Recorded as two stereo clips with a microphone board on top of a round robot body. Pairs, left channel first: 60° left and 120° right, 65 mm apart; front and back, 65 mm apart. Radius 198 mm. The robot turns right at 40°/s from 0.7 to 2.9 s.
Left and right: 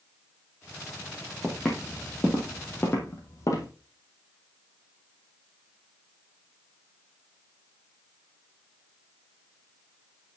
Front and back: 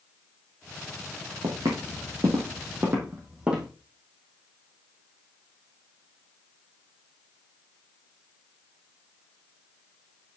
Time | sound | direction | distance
1.4 | footsteps | 140° left | 1.6 m